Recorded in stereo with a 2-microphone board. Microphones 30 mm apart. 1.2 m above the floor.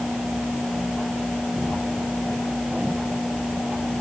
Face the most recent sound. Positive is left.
No sound to turn to.